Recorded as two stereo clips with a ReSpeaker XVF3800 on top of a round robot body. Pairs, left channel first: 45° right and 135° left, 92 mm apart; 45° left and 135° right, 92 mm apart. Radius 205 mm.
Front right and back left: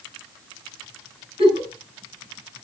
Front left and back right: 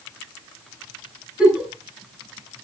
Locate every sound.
1.4 s a giggle: 145° left, 7 m